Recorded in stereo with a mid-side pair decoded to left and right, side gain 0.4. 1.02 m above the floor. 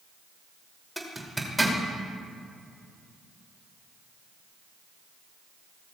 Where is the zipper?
5° right, 3 m.